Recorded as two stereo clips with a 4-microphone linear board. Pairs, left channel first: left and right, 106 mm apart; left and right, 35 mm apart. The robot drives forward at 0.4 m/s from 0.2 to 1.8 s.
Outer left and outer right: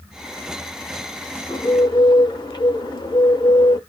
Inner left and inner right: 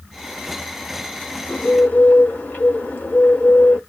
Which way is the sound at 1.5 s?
45° left (ahead or behind).